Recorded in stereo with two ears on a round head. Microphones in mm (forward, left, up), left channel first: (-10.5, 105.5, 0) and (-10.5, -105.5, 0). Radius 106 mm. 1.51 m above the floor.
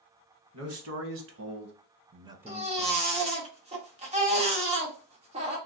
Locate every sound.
0.5 s a man speaking: 70° right (ahead or behind), 1.4 m; by 3.2 s 30° left (ahead or behind), 0.7 m
2.5 s a baby crying: 30° right (ahead or behind), 1.0 m